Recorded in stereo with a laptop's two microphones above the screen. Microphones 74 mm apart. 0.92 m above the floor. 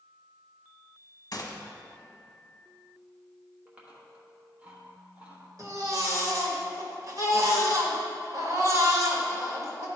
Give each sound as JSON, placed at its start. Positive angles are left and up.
{"t": 1.3, "sound": "a gunshot", "side_deg": 50, "distance_m": 1.1}
{"t": 3.7, "sound": "chewing", "side_deg": -15, "distance_m": 1.2}
{"t": 5.6, "sound": "a baby crying", "side_deg": -50, "distance_m": 1.3}